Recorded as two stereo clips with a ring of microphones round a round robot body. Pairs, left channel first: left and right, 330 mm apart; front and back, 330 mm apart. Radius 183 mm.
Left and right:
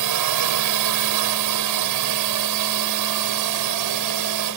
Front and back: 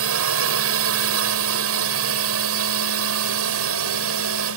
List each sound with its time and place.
0.0 s a drone: 130° right